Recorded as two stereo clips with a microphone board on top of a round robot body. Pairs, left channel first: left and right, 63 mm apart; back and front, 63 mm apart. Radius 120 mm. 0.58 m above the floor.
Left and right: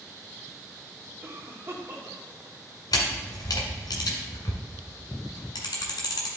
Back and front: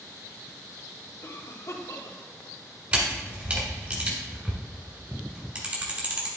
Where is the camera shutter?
65° left, 1.6 m.